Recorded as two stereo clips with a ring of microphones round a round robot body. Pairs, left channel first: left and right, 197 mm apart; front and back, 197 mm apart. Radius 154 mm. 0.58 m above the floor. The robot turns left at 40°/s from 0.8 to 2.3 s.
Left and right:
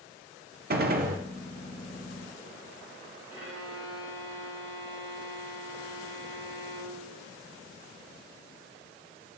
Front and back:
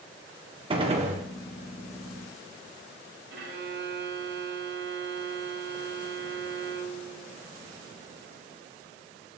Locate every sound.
0.7 s a gunshot: 120° right, 0.9 m; by 1.2 s 135° right, 0.9 m
3.3 s a violin: 170° right, 3.5 m